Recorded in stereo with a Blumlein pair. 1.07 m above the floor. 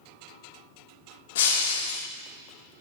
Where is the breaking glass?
55° left, 1.3 m.